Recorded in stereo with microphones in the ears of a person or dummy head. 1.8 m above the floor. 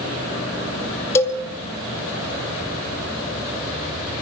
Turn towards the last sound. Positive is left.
turn(degrees=15)  # may be behind; listen again after turning